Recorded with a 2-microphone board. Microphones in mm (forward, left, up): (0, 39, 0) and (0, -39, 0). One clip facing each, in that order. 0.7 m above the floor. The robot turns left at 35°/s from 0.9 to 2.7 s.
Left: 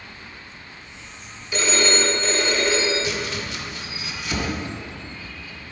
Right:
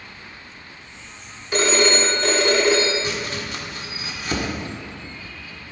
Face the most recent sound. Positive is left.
turn(degrees=-45)  # may be behind; listen again after turning